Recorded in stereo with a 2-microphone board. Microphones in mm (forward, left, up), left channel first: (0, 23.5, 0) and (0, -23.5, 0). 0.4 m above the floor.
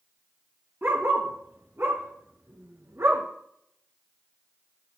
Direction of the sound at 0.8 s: 50° right (ahead or behind).